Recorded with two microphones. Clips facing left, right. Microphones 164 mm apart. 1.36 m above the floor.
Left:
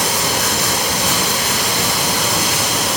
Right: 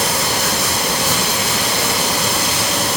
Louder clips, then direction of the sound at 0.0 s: Even; 85° left.